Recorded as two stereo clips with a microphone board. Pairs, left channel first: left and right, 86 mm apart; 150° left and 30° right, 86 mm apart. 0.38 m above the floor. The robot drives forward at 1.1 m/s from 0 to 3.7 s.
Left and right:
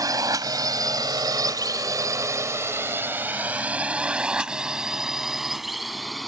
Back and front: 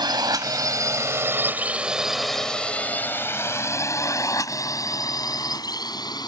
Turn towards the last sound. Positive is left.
turn(degrees=180)